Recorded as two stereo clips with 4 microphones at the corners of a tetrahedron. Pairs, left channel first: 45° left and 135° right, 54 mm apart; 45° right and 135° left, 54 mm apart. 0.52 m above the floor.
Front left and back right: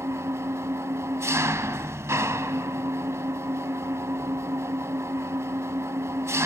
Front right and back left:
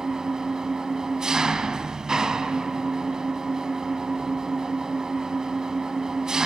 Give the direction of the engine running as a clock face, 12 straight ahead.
5 o'clock.